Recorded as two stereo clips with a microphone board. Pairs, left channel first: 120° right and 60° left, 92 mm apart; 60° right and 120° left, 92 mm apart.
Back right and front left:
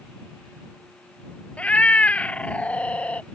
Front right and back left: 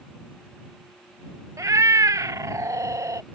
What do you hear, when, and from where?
1.6 s a cat meowing: 165° left